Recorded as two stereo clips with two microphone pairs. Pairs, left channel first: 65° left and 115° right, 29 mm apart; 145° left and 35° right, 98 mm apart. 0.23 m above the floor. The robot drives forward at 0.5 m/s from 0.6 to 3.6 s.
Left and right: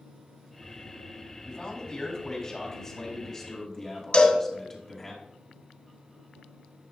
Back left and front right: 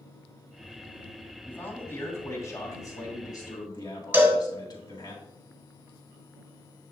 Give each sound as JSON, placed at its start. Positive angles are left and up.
{"t": 1.4, "sound": "a man speaking", "azimuth_deg": 90, "distance_m": 2.0}
{"t": 4.1, "sound": "a cowbell", "azimuth_deg": 30, "distance_m": 1.5}